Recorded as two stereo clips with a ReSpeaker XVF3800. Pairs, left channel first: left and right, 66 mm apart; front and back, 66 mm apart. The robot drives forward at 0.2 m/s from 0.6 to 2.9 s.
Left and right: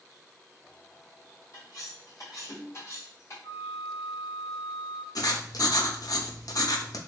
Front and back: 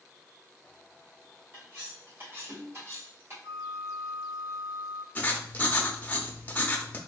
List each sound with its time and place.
1.5 s cutlery clinking: 125° left, 2.0 m; by 3.3 s 130° left, 2 m
3.4 s a flute: 145° left, 0.7 m
5.2 s writing: 65° left, 0.5 m